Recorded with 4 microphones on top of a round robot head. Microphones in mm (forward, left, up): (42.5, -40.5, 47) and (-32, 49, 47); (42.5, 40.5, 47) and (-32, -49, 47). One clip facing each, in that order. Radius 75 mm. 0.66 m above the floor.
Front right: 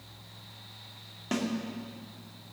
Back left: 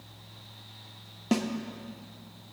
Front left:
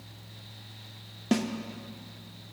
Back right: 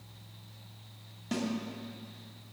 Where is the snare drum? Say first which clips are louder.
Back left 4 dB, front left 7 dB; 70° left, 0.9 m.